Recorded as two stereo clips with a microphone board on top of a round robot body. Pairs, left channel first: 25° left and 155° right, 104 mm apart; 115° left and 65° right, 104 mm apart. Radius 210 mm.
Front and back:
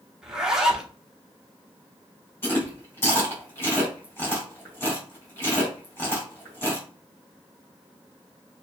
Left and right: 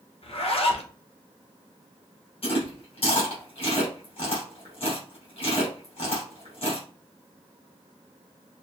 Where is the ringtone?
No ringtone in this recording.